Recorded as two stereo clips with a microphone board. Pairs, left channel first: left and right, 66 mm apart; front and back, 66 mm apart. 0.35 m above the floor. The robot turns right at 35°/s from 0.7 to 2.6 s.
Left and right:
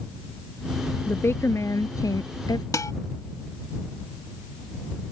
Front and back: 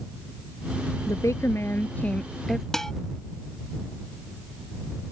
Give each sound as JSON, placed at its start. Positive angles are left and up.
{"t": 1.1, "sound": "a woman speaking", "azimuth_deg": 35}
{"t": 2.7, "sound": "dishes clattering", "azimuth_deg": 85}